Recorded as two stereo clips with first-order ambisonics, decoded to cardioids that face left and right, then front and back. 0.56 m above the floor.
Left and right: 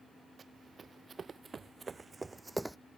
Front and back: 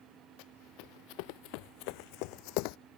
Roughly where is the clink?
I don't hear a clink.